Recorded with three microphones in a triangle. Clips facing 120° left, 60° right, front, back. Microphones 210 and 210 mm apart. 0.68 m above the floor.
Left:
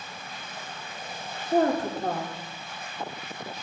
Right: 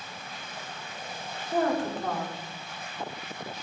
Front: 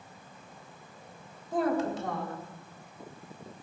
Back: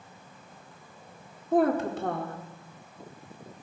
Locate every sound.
1.5 s a woman speaking: 160° left, 1.6 m